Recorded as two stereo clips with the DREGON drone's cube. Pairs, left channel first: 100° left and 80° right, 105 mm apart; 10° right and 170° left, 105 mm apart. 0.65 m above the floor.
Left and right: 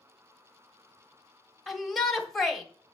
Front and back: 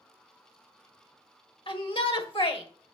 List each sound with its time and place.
1.7 s a shout: 10° left, 1.5 m